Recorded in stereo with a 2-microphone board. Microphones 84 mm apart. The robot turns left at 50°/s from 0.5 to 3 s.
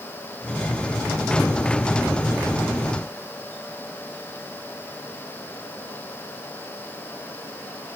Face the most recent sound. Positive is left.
No sound to turn to.